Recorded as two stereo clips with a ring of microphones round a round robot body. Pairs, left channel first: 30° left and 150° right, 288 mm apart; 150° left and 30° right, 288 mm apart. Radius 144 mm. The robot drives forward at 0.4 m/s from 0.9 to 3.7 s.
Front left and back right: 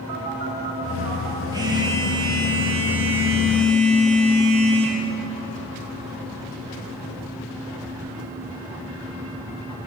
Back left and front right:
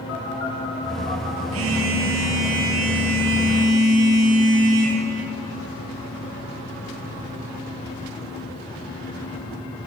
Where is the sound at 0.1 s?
165° right, 4 m.